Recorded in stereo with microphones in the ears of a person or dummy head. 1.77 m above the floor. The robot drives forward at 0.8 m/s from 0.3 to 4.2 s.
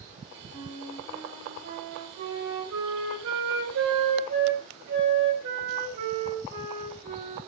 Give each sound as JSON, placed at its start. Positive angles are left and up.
{"t": 0.5, "sound": "a flute", "side_deg": -80, "distance_m": 5.0}